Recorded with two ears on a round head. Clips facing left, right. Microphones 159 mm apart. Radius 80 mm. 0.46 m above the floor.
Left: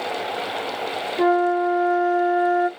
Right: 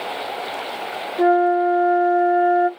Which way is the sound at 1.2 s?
5° left (ahead or behind).